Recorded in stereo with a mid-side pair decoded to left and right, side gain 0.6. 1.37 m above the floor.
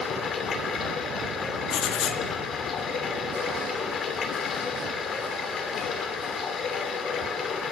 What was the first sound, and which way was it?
Running water, 45° left.